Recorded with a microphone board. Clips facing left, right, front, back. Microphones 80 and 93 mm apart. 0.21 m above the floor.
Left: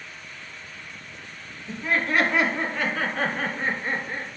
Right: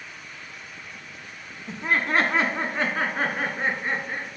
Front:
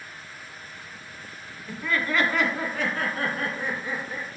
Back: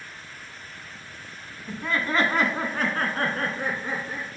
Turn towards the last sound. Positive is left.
turn(degrees=-160)